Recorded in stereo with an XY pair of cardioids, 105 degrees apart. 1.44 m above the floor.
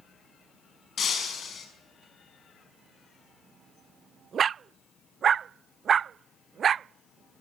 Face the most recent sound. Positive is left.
turn(degrees=50)